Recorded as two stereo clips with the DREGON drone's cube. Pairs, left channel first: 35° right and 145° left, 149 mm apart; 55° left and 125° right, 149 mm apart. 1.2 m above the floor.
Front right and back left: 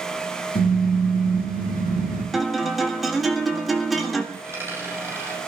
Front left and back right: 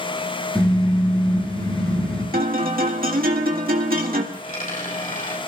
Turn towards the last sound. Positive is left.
turn(degrees=75)